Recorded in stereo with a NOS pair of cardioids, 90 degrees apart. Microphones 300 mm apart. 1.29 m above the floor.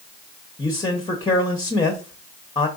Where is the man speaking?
15° left, 0.9 m.